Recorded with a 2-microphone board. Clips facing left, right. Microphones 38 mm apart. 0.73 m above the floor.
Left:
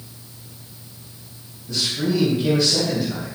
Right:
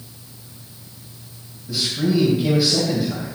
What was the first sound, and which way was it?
A man speaking, 5° right (ahead or behind).